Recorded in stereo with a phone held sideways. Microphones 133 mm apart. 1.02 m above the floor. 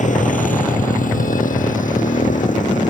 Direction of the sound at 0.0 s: 70° left (ahead or behind).